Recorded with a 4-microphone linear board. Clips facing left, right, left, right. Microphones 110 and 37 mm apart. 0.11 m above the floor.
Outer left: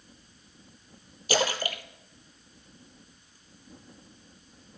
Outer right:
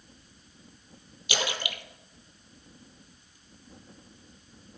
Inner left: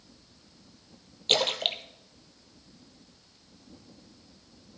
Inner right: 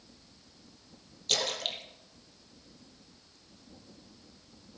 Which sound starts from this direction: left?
A splash, at 1.3 s.